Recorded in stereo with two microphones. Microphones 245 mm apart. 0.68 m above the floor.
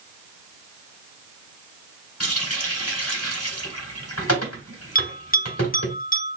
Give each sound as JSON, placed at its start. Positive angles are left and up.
{"t": 2.2, "sound": "a running tap", "side_deg": 75, "distance_m": 1.4}
{"t": 5.0, "sound": "a bell", "side_deg": 35, "distance_m": 0.7}